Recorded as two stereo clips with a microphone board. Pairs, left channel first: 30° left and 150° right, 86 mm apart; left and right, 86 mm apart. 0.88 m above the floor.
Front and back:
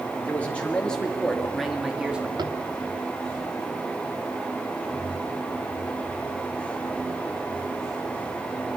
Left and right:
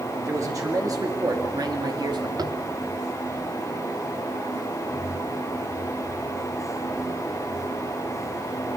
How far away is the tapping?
About 1.4 m.